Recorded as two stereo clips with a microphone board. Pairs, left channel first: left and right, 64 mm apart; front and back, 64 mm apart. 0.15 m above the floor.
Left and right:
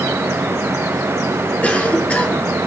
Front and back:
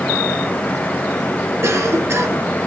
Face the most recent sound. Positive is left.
turn(degrees=155)